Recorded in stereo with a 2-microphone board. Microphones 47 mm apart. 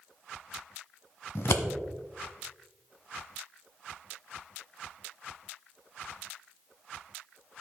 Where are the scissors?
60° left (ahead or behind), 1.1 m.